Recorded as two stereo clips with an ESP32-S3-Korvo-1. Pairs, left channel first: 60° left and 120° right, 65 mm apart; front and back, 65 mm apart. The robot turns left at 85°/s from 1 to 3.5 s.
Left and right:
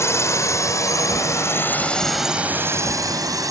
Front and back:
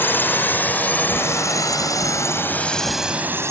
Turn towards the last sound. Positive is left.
turn(degrees=-140)